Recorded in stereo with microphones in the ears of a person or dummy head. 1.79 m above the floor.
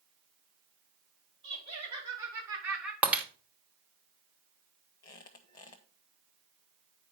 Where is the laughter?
35° right (ahead or behind), 3.5 m; by 2.9 s 5° right (ahead or behind), 2.5 m.